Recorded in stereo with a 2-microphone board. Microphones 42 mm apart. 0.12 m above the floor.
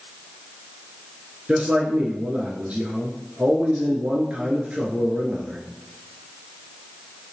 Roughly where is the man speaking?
Right.